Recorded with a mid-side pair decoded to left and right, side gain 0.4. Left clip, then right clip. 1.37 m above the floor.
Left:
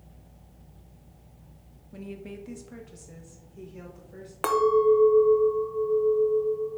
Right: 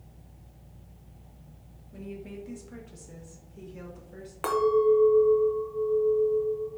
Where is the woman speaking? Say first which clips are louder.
Left 1 dB; 45° left, 0.7 m; by 4.3 s 15° right, 1.5 m.